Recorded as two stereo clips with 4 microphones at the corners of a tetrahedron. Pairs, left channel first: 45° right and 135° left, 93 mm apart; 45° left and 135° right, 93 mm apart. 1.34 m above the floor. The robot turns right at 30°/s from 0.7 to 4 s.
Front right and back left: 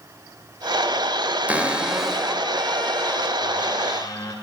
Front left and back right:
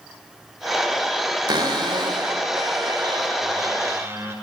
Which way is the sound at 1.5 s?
155° right.